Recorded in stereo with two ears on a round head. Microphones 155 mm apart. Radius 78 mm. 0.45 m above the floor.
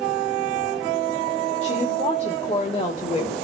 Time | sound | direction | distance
1.6 | a woman speaking | 40° left (ahead or behind) | 1.6 m